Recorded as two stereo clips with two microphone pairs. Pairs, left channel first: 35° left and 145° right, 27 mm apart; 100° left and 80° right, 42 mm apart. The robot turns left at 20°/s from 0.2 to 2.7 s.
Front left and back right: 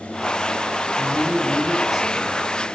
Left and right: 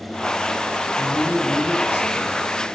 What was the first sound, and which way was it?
A man speaking, 150° left.